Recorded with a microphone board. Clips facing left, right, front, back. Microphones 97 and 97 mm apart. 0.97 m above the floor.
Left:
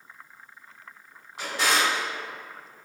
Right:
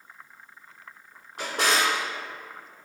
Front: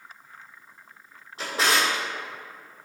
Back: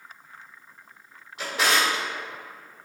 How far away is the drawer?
About 1.4 m.